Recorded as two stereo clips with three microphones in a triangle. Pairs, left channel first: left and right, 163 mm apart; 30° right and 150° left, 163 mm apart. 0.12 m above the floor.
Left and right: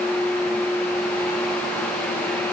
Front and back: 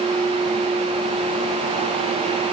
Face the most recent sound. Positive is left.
No sound to turn to.